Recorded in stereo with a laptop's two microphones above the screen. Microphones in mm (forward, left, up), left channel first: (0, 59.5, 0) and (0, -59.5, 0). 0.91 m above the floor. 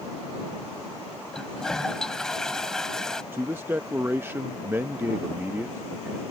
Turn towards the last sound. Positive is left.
turn(degrees=-20)  # may be behind; listen again after turning